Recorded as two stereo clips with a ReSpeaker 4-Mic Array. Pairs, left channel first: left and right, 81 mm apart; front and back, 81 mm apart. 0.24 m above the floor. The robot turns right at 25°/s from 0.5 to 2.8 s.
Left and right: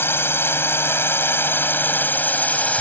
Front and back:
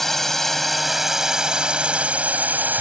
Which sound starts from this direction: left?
A drone, at 0.0 s.